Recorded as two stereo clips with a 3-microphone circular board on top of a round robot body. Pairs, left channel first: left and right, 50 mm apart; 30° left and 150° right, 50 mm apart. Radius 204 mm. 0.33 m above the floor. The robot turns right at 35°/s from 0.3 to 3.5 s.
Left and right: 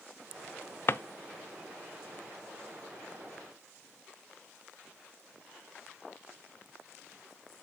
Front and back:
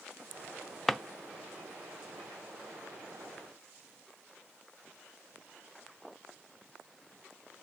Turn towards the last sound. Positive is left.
turn(degrees=-155)